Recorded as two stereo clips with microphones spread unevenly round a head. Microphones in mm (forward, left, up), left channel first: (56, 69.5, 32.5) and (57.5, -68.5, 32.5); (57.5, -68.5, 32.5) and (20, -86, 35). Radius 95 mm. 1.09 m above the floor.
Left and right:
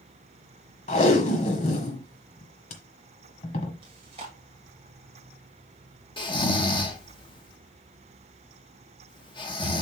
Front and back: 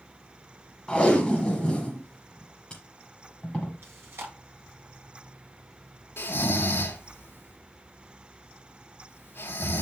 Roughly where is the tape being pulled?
Left.